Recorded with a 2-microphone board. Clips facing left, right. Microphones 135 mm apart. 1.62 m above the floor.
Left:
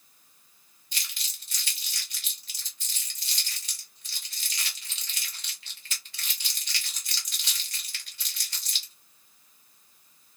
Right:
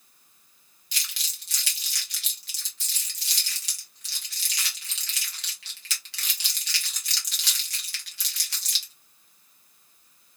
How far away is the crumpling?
About 1.1 m.